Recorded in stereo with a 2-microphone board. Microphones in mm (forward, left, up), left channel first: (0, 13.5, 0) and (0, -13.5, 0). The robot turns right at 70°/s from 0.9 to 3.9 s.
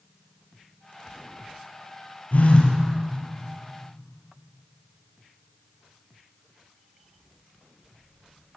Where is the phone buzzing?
105° left, 2.5 m; by 2.8 s 135° left, 2.5 m.